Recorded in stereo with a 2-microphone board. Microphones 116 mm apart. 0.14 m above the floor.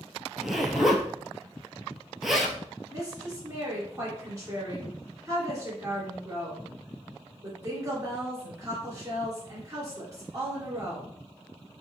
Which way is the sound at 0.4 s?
Centre (ahead or behind).